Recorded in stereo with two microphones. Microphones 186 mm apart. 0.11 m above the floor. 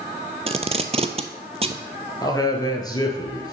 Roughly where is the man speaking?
Left.